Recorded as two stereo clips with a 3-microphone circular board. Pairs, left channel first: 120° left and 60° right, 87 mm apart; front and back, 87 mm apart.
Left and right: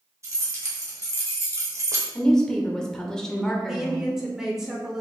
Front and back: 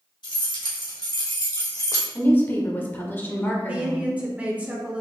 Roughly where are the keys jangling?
Ahead.